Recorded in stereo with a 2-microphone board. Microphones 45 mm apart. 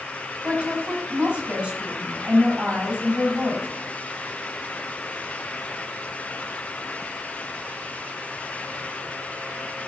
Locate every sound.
0.4 s a woman speaking: 45° right (ahead or behind), 5 m